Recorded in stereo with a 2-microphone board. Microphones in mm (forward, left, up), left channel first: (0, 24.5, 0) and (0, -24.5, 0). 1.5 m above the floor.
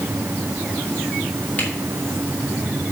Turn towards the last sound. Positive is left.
turn(degrees=30)  # may be behind; listen again after turning